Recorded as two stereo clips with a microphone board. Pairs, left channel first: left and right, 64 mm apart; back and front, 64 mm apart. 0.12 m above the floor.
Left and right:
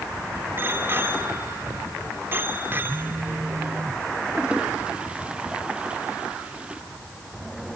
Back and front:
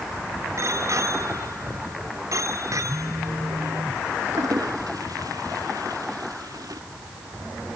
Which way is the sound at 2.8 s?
60° right.